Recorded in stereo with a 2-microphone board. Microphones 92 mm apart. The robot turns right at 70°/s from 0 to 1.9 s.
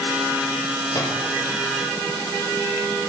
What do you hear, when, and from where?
0.9 s a microwave: 35° left (ahead or behind), 7 m; by 1.2 s 55° left (ahead or behind), 7 m